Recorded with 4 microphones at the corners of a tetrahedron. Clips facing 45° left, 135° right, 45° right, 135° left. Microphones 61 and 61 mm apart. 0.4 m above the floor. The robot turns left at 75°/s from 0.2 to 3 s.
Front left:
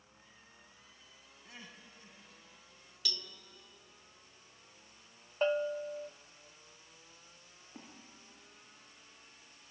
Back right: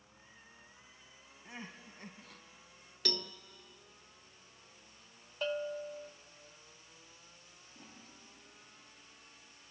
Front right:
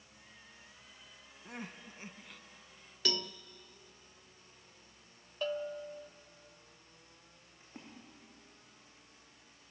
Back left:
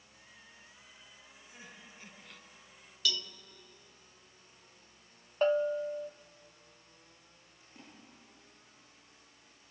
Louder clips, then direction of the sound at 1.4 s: Back right 5 dB, front right 8 dB; 65° right.